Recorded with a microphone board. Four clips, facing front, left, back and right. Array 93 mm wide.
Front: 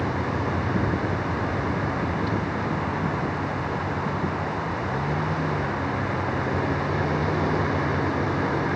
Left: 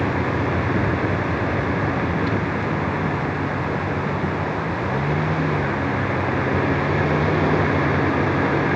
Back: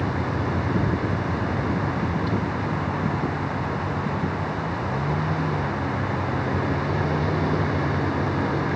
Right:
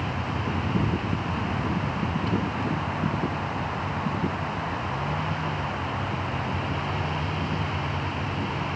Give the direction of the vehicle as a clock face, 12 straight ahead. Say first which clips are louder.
Left 8 dB, even; 9 o'clock.